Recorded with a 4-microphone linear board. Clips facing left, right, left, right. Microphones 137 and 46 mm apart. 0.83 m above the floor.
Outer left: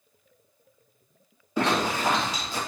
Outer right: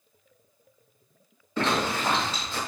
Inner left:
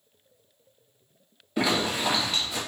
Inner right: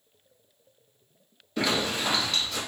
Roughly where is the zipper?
Centre.